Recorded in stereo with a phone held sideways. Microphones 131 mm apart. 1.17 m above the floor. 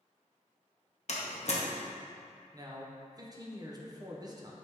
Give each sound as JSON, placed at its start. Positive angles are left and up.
{"t": 1.1, "sound": "a door slam", "side_deg": 55, "distance_m": 0.7}
{"t": 2.5, "sound": "a man speaking", "side_deg": -30, "distance_m": 0.6}